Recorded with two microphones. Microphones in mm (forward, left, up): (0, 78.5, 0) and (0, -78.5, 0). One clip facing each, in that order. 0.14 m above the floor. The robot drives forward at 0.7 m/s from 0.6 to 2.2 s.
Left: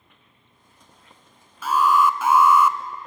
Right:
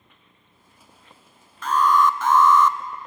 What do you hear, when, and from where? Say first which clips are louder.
1.6 s an alarm: even; 10° left (ahead or behind), 1.0 m